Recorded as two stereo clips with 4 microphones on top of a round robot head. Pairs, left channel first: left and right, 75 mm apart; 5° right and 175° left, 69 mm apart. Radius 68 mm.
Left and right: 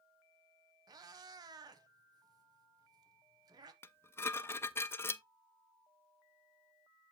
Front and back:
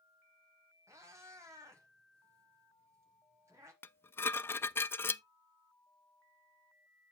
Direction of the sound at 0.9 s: 125° right.